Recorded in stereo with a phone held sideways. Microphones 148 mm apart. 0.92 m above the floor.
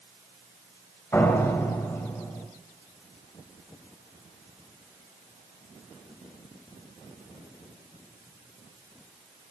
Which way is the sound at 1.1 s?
15° left (ahead or behind).